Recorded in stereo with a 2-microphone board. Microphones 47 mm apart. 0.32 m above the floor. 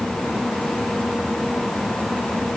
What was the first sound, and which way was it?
Only background noise.